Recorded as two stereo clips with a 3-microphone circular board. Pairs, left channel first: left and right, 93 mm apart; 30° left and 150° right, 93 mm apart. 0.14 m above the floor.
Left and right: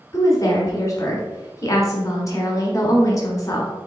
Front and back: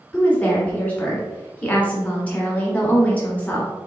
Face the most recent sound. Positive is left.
turn(degrees=90)